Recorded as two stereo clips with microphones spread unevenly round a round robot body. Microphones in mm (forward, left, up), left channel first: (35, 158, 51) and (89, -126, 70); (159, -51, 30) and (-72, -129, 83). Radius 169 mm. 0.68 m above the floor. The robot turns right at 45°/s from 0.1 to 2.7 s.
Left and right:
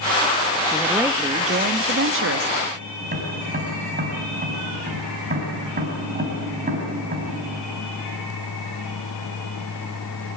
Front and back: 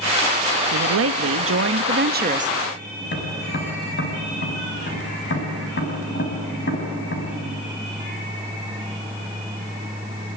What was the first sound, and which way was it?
A woman speaking, 175° right.